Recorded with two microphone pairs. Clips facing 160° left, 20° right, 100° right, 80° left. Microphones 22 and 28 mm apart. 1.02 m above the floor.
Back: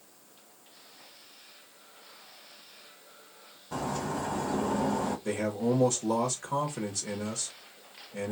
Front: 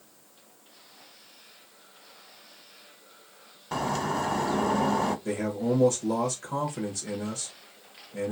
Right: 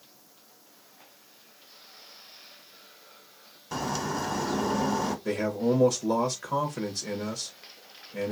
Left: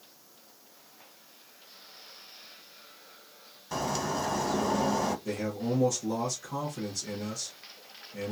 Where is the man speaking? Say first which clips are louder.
Front 1 dB, right 5 dB; 125° right, 0.9 m.